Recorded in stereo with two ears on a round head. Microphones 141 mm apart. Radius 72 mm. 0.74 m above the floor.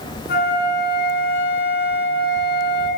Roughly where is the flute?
Left.